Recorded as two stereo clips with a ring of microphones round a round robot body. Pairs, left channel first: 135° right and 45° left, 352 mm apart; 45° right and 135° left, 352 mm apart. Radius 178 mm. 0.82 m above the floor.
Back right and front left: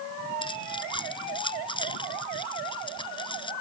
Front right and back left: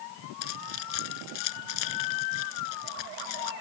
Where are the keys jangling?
60° right.